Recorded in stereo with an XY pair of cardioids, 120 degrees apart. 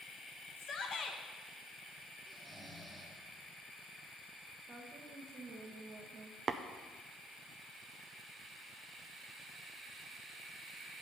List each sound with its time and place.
0.6 s a shout: 50° left, 1.5 m
2.3 s snoring: 5° right, 1.9 m
4.7 s a woman speaking: 25° right, 1.2 m
6.5 s tapping: 35° right, 0.5 m